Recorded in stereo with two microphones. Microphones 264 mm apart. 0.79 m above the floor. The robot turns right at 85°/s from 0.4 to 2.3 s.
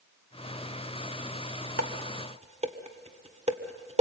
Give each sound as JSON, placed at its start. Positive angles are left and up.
{"t": 1.8, "sound": "dishes clattering", "side_deg": -70, "distance_m": 1.3}